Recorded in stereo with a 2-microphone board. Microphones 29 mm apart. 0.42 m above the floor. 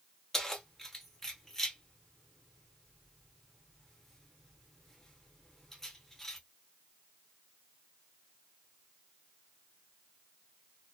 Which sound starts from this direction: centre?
Keys jangling, at 0.3 s.